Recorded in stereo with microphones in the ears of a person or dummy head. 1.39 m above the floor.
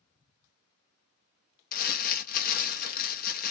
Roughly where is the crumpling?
Left.